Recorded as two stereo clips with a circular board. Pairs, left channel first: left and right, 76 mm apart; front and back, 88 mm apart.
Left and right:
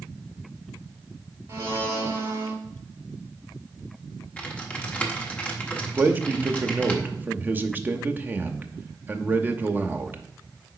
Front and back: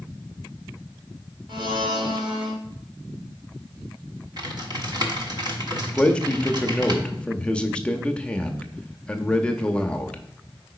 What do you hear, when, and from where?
1.5 s a blender: 150° right, 1.2 m
4.4 s typing on a keyboard: 160° left, 1.1 m
6.0 s a man speaking: 60° right, 0.6 m